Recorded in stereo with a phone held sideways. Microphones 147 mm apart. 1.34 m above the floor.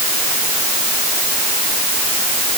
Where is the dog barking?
I don't hear a dog barking.